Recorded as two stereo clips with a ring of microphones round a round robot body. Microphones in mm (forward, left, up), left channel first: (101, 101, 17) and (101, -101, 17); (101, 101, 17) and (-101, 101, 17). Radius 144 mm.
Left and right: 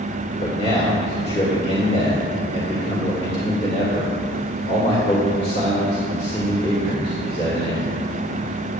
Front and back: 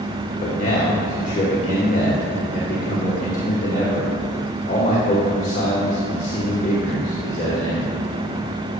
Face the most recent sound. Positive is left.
turn(degrees=40)